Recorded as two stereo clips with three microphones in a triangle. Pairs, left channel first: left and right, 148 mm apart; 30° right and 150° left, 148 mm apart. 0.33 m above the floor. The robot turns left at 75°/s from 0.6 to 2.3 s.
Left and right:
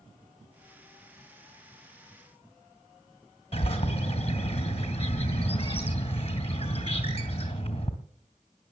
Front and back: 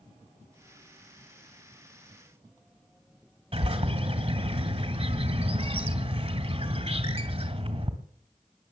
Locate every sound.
3.5 s a bird: 125° left, 2 m